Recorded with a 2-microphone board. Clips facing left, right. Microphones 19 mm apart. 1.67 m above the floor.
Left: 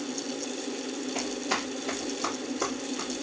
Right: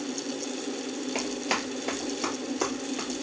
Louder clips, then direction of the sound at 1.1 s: Right 1 dB; 35° right (ahead or behind).